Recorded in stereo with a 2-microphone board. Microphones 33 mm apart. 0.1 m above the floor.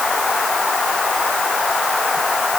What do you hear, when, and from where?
Only background noise.